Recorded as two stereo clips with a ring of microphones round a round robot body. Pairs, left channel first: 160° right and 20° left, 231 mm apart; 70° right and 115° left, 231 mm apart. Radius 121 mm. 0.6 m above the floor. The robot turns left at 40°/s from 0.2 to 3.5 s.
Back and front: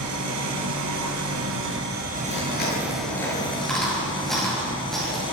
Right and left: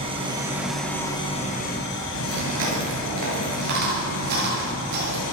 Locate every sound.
0.0 s an engine running: 45° left, 3.5 m; by 5.3 s 90° right, 3.5 m
2.3 s chewing: 165° left, 9 m; by 5.2 s 115° left, 9 m